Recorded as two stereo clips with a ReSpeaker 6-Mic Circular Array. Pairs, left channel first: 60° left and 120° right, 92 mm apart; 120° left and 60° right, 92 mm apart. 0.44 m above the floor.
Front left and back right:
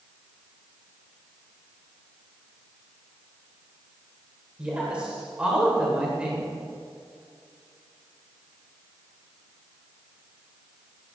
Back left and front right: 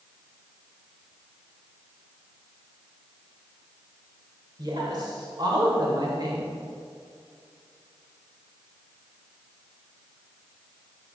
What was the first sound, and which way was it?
A woman speaking, 45° right.